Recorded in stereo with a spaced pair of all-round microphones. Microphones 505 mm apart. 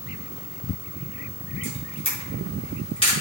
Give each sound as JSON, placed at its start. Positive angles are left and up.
{"t": 1.6, "sound": "a camera shutter", "side_deg": 10, "distance_m": 6.0}